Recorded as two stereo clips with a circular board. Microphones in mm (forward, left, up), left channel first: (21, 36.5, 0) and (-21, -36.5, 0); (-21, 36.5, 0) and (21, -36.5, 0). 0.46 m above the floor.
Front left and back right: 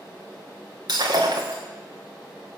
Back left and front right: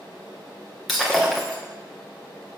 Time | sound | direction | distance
0.9 | breaking glass | 150° right | 2.5 m